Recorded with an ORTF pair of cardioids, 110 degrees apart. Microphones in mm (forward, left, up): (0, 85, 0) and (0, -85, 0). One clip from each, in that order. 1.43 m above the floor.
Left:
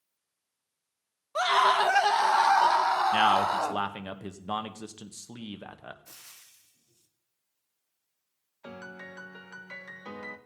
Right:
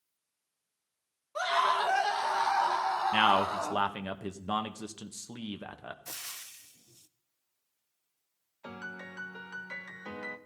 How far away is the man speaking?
About 1.1 m.